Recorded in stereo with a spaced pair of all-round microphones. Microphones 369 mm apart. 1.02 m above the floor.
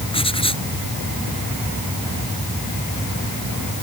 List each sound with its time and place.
0.1 s writing: 15° left (ahead or behind)